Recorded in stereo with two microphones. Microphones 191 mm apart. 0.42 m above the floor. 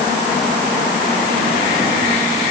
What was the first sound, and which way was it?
Only background noise.